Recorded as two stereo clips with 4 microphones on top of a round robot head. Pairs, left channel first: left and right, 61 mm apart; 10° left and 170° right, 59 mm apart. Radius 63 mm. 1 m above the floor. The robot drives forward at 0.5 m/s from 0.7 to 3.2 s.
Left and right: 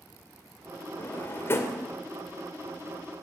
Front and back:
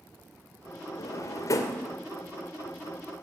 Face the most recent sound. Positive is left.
turn(degrees=55)